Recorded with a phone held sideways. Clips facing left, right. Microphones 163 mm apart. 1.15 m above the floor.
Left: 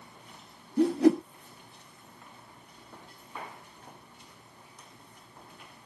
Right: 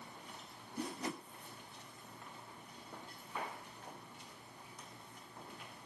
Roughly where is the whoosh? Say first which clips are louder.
Left 20 dB; left.